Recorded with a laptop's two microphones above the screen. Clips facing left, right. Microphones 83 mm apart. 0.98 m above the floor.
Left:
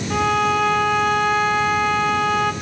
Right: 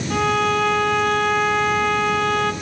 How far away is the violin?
About 1.2 m.